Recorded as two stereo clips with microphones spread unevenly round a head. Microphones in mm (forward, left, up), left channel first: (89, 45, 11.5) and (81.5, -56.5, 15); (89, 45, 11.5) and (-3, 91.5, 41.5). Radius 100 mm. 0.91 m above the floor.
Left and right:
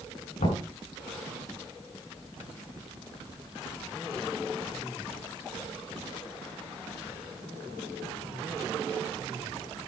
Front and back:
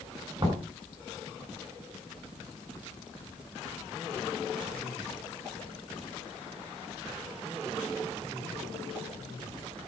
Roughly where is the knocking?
Left.